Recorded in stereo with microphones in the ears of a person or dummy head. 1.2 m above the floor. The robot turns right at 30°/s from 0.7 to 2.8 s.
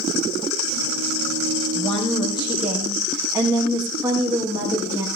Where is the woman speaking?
165° left, 1.2 m; by 5.1 s 165° right, 1.2 m.